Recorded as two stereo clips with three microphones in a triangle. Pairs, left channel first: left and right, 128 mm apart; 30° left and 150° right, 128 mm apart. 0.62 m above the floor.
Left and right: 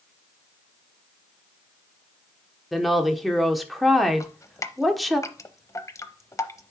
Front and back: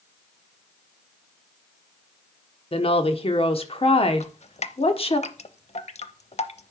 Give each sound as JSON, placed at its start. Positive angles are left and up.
{"t": 2.7, "sound": "a woman speaking", "azimuth_deg": 0, "distance_m": 1.2}
{"t": 4.2, "sound": "dripping", "azimuth_deg": 30, "distance_m": 0.6}